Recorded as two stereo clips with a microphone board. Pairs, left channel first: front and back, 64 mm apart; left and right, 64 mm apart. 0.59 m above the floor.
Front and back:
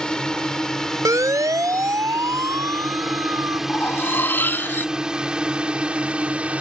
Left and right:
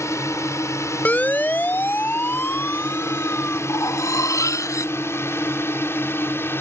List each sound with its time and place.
0.0 s a drone: 75° left; by 6.6 s 120° left
1.1 s a siren: 155° left; by 3.6 s 145° left
3.7 s cutlery clinking: 55° left